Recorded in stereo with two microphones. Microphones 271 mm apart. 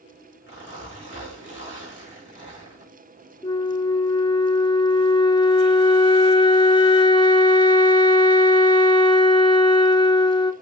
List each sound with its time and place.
0.5 s a zipper: 45° left (ahead or behind), 5.5 m
3.4 s a flute: 20° left (ahead or behind), 0.7 m